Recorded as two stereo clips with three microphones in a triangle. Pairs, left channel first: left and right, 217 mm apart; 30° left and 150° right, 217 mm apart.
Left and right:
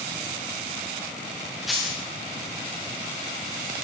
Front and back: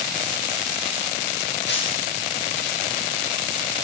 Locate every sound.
1.7 s a dropped coin: straight ahead, 6.5 m